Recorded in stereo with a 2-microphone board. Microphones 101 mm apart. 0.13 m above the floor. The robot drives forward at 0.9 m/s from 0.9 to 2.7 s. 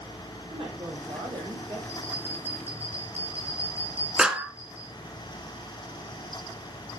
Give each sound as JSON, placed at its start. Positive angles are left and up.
{"t": 0.5, "sound": "a woman speaking", "side_deg": -75, "distance_m": 5.0}
{"t": 1.9, "sound": "a bell", "side_deg": -75, "distance_m": 8.0}
{"t": 4.2, "sound": "a clap", "side_deg": -10, "distance_m": 1.3}